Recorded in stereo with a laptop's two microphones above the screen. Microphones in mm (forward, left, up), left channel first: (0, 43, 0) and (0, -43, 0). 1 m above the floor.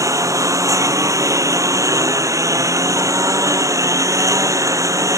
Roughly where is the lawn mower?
Right.